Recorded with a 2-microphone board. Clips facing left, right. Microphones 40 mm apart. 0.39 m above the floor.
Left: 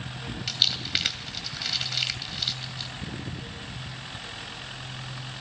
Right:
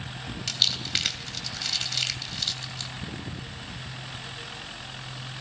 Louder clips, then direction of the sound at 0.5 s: Left 1 dB; 10° left (ahead or behind).